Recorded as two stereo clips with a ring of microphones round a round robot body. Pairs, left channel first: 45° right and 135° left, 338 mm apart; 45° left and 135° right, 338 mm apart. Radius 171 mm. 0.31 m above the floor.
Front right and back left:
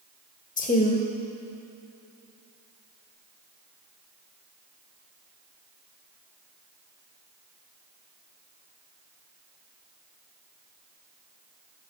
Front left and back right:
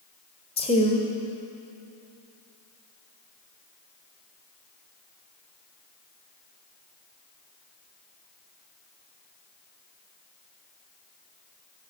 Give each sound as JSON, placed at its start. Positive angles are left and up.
{"t": 0.6, "sound": "a woman speaking", "azimuth_deg": -10, "distance_m": 1.3}